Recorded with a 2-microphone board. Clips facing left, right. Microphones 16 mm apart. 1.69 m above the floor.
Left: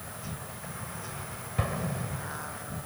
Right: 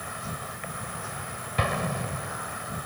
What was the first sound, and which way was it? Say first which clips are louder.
An insect: right 6 dB; 40° right (ahead or behind).